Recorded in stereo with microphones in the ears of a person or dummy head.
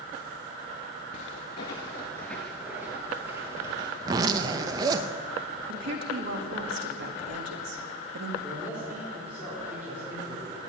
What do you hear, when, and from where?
1.1 s footsteps: 30° left (ahead or behind), 1.3 m; by 3.9 s 25° right (ahead or behind), 1.9 m
4.0 s a zipper: 25° right (ahead or behind), 0.7 m
5.7 s a woman speaking: 60° right (ahead or behind), 1.9 m
8.4 s a man speaking: 15° right (ahead or behind), 4 m